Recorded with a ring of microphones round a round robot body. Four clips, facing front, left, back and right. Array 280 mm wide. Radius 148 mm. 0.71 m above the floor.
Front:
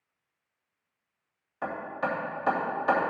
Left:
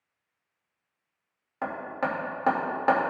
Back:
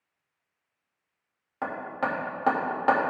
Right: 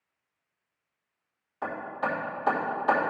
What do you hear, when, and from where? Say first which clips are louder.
1.6 s hammering: left 1 dB, back 1 dB; 130° left, 2.5 m